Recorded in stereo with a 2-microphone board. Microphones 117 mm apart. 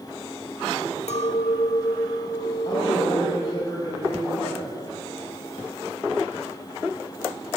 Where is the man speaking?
30° left (ahead or behind), 5.5 m.